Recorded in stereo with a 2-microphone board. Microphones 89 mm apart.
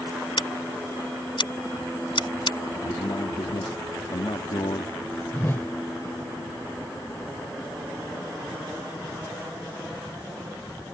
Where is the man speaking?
65° left (ahead or behind).